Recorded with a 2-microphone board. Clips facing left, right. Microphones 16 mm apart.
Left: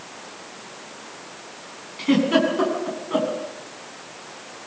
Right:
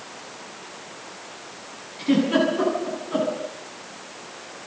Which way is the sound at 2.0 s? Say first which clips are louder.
Left 1 dB; 15° left (ahead or behind).